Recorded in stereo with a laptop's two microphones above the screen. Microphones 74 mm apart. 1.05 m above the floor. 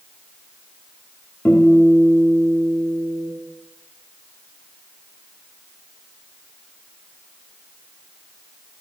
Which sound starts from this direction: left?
A guitar, at 1.4 s.